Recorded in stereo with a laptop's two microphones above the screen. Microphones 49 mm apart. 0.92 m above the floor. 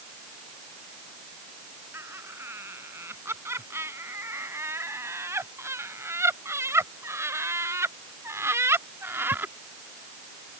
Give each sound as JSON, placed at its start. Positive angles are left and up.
{"t": 1.9, "sound": "laughter", "side_deg": -60}